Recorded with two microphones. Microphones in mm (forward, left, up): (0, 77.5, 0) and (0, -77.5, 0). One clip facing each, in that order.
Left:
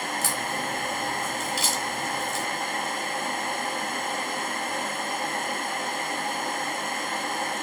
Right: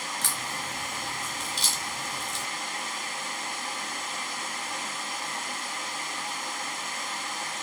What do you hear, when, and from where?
0.2 s a crack: 5° left (ahead or behind), 3 m